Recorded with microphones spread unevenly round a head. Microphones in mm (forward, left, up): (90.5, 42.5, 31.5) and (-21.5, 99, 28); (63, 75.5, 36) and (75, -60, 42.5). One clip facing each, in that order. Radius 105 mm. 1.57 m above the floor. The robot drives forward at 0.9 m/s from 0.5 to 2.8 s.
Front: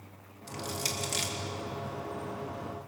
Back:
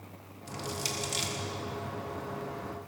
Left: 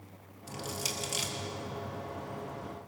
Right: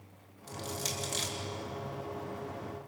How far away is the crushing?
About 4.5 m.